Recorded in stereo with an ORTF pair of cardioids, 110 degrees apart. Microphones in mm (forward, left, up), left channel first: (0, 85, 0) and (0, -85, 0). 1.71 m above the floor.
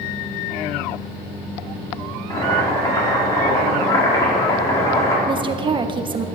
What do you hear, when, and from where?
2.3 s boiling: 20° left, 5 m
5.3 s a woman speaking: 30° right, 1.4 m